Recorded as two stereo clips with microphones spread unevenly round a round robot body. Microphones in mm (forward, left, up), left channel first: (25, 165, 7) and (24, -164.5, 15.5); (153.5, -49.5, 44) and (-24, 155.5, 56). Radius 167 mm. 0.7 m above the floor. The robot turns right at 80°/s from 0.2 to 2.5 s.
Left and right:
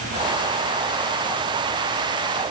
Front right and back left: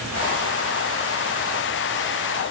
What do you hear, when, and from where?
Only background noise.